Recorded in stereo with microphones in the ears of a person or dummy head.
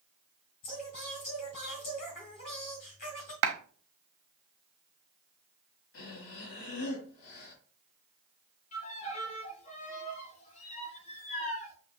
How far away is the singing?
About 1.9 m.